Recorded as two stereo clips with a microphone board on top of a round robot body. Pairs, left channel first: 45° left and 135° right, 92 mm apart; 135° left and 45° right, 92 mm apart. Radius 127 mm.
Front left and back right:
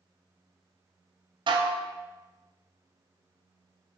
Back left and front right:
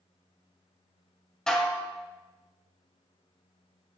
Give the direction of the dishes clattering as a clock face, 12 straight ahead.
5 o'clock.